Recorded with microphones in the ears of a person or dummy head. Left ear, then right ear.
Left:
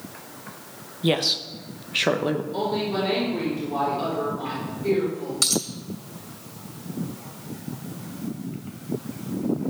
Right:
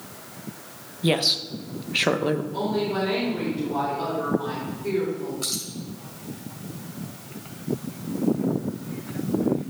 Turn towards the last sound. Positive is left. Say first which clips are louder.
# left 10 dB
turn(degrees=75)  # may be behind; listen again after turning